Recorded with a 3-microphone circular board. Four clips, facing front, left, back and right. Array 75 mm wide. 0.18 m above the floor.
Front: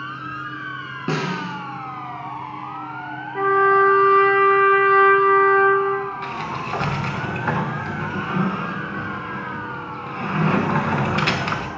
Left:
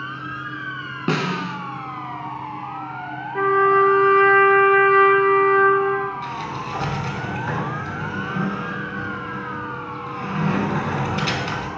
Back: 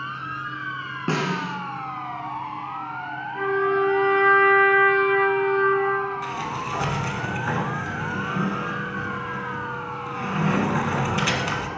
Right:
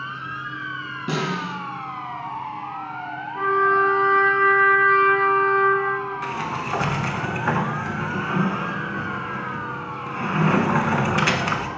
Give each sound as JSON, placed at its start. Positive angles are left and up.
{"t": 1.1, "sound": "a snare drum", "azimuth_deg": 95, "distance_m": 1.0}
{"t": 3.4, "sound": "a trumpet", "azimuth_deg": 50, "distance_m": 0.9}
{"t": 6.2, "sound": "a sliding door", "azimuth_deg": -50, "distance_m": 0.7}